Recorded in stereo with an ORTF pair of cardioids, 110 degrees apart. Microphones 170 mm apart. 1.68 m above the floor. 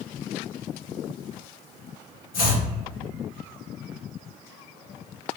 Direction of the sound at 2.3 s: 60° left.